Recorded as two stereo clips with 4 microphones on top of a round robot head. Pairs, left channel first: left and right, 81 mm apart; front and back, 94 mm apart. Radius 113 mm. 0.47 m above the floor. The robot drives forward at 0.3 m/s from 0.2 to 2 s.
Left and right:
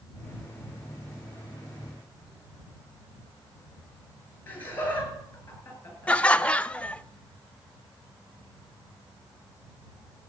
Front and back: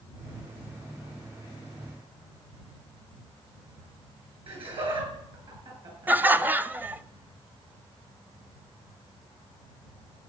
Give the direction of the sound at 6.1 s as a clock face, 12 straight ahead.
7 o'clock.